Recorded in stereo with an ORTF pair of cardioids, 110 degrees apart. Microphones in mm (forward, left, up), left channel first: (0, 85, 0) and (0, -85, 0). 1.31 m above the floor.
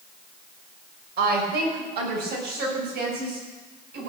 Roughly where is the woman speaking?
Ahead right.